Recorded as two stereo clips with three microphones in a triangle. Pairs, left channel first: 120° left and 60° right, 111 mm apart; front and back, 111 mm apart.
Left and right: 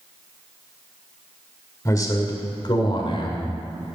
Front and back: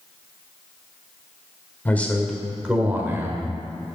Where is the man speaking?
70° left, 1.7 m; by 3.5 s 125° left, 2 m.